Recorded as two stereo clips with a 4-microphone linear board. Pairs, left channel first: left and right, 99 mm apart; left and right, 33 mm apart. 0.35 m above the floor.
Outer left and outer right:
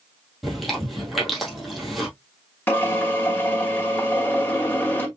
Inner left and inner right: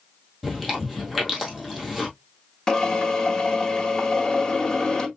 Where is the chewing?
Centre (ahead or behind), 2.5 m.